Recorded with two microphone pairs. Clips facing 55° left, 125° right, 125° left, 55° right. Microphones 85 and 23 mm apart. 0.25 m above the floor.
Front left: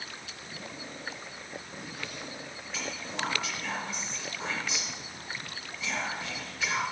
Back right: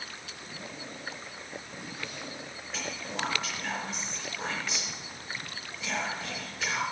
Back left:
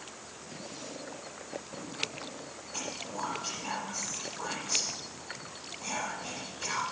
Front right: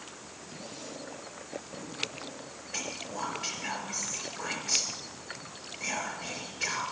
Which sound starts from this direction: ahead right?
Whispering, at 2.7 s.